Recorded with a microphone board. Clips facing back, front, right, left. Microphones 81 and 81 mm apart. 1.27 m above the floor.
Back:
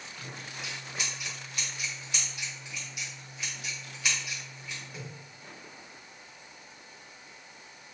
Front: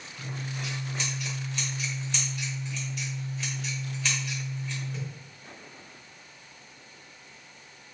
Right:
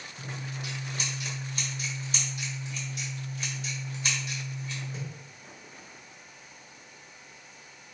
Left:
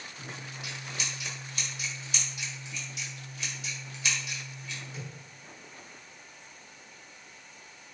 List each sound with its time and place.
0.2 s scissors: 105° right, 1.2 m